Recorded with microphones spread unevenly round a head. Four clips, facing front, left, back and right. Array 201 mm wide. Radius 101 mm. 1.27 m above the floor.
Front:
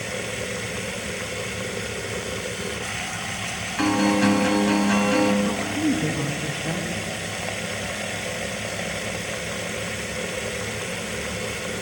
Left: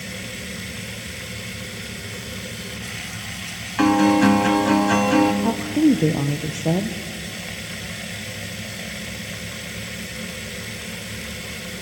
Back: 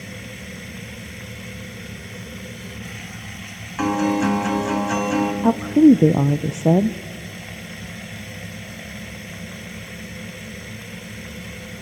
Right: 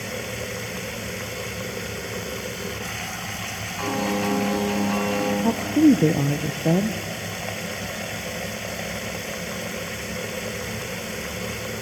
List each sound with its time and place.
0.0 s running water: 25° right, 0.7 m
3.8 s a guitar: 90° left, 3.5 m
5.4 s a woman speaking: 170° right, 0.6 m